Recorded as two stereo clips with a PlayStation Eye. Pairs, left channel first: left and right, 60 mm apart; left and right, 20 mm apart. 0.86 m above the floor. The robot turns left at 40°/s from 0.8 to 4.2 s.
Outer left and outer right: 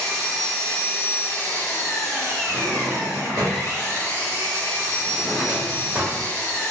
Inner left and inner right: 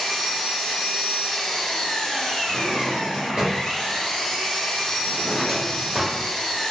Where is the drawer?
85° right, 1.1 m; by 6.2 s 20° right (ahead or behind), 1.1 m.